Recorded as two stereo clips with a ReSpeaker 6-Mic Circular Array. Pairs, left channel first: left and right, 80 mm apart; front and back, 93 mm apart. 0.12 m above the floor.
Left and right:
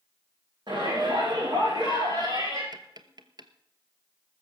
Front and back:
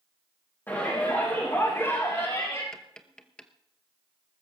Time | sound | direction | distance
0.7 | a shout | 65° right | 5.5 m
2.7 | tapping | 80° right | 1.0 m